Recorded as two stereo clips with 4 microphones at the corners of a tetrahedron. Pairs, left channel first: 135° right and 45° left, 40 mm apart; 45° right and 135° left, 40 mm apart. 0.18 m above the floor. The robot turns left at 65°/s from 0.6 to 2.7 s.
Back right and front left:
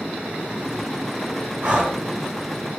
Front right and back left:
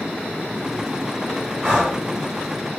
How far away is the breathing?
About 1.4 m.